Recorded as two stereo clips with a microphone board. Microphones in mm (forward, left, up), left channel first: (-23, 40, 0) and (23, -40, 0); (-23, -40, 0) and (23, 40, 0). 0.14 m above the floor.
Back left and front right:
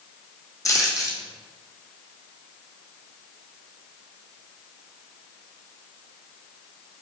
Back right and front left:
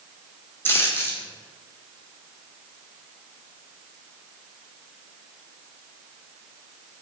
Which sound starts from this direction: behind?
A dropped coin, at 0.7 s.